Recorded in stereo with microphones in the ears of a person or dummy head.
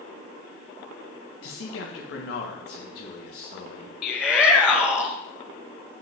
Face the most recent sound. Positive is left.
turn(degrees=15)  # may be behind; listen again after turning